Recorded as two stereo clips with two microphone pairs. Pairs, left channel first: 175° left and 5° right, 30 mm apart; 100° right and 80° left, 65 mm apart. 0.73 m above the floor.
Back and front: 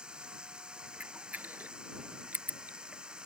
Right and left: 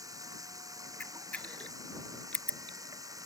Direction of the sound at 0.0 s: 55° left.